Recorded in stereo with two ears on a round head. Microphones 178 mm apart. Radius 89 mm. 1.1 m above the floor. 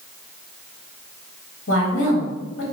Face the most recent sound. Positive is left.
turn(degrees=70)  # may be behind; listen again after turning